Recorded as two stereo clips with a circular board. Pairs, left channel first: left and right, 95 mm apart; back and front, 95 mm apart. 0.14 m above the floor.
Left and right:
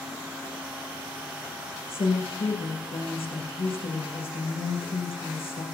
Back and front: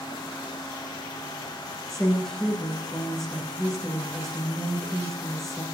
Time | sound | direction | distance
1.9 | a woman speaking | 95° left | 8.5 m